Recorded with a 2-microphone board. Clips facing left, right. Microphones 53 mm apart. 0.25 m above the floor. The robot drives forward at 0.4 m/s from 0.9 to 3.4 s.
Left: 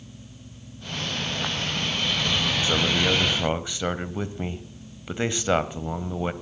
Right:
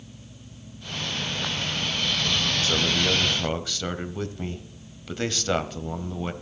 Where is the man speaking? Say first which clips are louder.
Left 2 dB; 20° left (ahead or behind), 1.0 m.